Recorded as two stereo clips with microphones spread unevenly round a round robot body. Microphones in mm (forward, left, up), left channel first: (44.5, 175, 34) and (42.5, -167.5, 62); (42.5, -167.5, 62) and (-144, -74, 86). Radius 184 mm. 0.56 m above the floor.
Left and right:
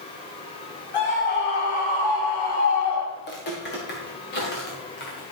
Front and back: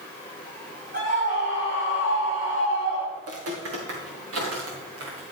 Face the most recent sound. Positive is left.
turn(degrees=155)